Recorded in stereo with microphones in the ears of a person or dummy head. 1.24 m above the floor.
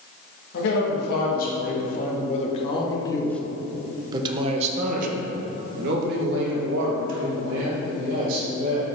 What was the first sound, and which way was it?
A man speaking, 60° left (ahead or behind).